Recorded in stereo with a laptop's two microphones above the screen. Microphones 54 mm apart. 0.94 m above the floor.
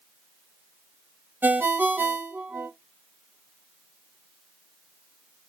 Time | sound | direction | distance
1.4 | a ringtone | 35° right (ahead or behind) | 0.5 m